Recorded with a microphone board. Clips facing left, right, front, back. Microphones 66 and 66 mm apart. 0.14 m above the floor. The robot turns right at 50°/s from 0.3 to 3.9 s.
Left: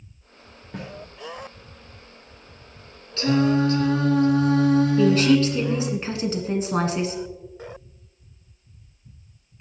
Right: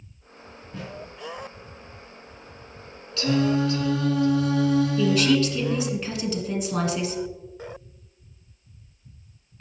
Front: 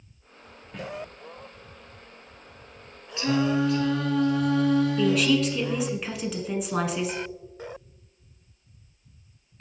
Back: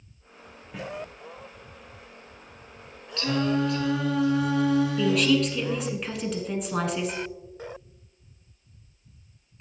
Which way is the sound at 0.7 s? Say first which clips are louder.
Left 2 dB, even; 95° left.